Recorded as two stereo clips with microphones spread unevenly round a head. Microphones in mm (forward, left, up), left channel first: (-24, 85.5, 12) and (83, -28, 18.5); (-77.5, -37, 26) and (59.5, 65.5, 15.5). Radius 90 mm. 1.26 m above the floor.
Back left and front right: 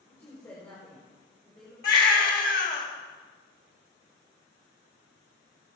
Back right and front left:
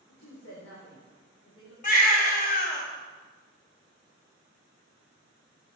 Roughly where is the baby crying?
Behind.